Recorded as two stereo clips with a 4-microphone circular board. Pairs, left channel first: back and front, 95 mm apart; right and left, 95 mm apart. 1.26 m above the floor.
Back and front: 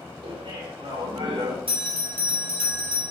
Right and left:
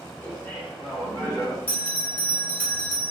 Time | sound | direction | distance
0.2 | laughter | 20° right | 2.5 m
1.7 | a bell | 20° right | 2 m